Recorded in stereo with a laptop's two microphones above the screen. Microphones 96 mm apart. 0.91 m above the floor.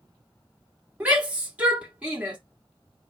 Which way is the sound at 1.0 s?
15° right (ahead or behind).